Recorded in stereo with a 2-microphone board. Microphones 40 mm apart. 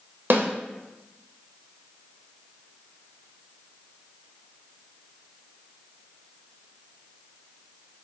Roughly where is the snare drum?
Right.